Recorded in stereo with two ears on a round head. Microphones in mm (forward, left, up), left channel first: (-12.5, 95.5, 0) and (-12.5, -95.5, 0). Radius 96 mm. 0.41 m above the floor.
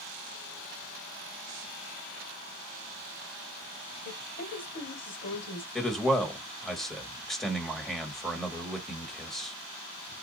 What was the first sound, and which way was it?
A woman speaking, 45° left (ahead or behind).